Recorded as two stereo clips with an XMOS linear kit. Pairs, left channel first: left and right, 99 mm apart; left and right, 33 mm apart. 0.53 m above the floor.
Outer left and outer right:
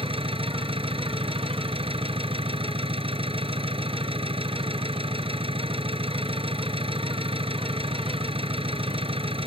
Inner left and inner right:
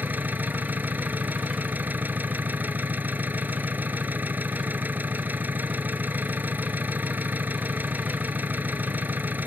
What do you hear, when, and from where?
0.0 s an engine running: 70° right (ahead or behind)